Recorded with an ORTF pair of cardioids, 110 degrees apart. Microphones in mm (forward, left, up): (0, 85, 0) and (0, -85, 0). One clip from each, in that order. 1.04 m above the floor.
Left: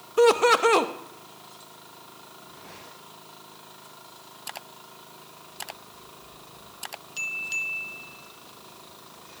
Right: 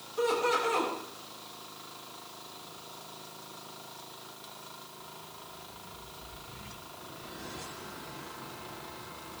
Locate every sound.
0.2 s laughter: 65° left, 1.1 m